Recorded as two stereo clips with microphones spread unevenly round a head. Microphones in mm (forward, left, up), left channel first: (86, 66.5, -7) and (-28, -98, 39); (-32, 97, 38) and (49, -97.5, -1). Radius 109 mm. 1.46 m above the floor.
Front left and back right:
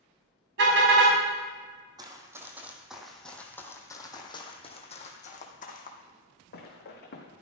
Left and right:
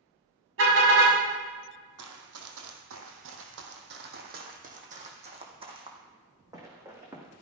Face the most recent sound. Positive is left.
turn(degrees=15)